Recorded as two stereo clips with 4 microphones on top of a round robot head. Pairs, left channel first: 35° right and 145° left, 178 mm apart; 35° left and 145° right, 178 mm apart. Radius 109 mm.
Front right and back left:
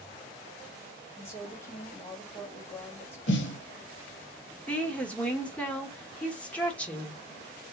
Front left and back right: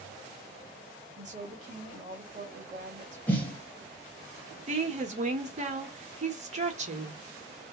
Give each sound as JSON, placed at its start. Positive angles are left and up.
{"t": 1.2, "sound": "a woman speaking", "azimuth_deg": -110, "distance_m": 1.4}
{"t": 3.3, "sound": "a snare drum", "azimuth_deg": -40, "distance_m": 0.7}
{"t": 4.7, "sound": "a woman speaking", "azimuth_deg": -115, "distance_m": 1.3}